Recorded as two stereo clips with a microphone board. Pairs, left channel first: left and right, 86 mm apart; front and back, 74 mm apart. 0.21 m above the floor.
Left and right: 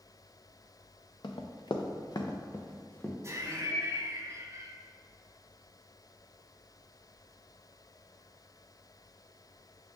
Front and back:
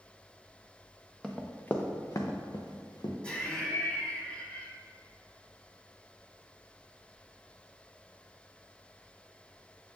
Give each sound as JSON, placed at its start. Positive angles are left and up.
{"t": 1.2, "sound": "running footsteps", "azimuth_deg": 80, "distance_m": 1.0}
{"t": 3.2, "sound": "laughter", "azimuth_deg": -70, "distance_m": 1.2}